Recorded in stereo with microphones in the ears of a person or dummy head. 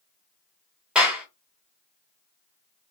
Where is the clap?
5° right (ahead or behind), 1.1 m.